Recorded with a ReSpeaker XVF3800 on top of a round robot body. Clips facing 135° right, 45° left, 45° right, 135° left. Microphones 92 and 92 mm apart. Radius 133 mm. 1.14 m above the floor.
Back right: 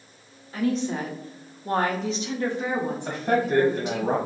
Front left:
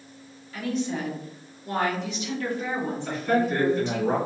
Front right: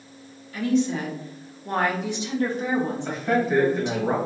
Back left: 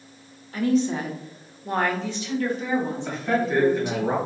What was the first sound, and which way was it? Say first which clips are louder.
A woman speaking: back right 3 dB, back left 1 dB; 170° left.